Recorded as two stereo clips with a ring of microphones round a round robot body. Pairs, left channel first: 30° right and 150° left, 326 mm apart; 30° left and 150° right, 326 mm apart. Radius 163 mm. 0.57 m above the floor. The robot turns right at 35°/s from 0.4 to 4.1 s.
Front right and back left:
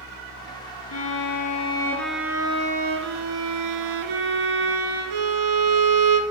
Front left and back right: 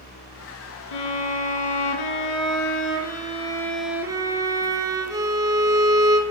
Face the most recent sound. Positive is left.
turn(degrees=130)